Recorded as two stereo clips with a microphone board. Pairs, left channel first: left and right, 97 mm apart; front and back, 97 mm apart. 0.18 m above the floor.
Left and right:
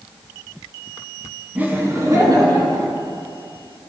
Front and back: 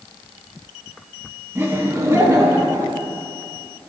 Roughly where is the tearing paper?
No tearing paper in this recording.